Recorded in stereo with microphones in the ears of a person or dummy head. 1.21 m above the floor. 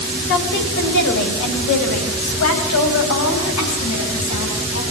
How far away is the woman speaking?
About 5.5 m.